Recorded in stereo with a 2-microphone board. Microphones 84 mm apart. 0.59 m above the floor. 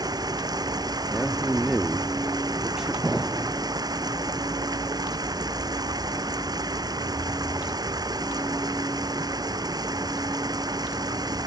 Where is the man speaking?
5° right (ahead or behind).